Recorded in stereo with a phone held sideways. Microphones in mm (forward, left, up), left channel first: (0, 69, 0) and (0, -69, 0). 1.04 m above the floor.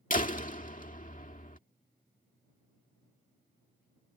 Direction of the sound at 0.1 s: 75° left (ahead or behind).